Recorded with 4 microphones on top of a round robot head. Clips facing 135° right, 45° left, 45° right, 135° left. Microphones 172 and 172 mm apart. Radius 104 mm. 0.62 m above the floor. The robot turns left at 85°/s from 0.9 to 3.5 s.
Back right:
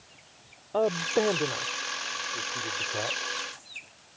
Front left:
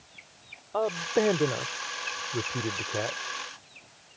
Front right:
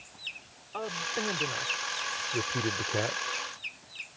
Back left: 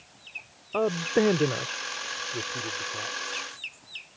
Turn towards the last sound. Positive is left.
turn(degrees=-65)